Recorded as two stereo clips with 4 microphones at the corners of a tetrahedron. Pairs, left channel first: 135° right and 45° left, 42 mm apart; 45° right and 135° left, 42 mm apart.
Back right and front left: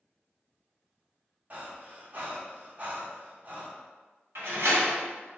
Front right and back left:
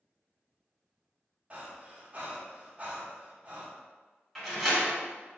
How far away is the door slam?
About 1.9 m.